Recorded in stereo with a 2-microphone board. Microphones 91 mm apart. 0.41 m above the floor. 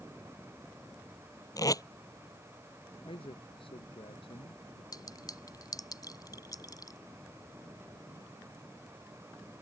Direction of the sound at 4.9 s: 45° left (ahead or behind).